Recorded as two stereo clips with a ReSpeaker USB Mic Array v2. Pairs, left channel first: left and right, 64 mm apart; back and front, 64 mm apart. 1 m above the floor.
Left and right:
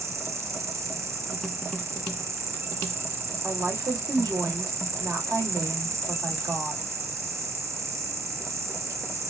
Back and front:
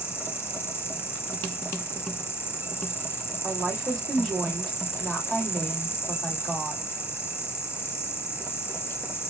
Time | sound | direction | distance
0.0 | an insect | 125° right | 0.8 m
3.4 | a woman speaking | 90° right | 2.5 m